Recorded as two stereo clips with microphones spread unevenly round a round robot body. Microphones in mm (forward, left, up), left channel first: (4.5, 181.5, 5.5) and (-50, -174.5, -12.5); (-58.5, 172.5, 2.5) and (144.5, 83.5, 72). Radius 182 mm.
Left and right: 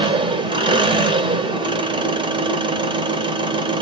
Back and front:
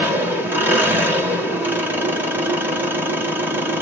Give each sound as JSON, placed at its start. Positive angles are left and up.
{"t": 0.0, "sound": "an engine running", "azimuth_deg": -140, "distance_m": 1.1}